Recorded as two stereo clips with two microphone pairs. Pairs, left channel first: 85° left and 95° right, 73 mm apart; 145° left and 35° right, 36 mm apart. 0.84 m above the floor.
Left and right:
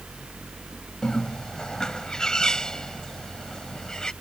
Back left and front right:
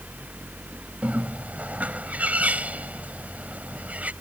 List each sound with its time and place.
1.0 s a bird: 5° left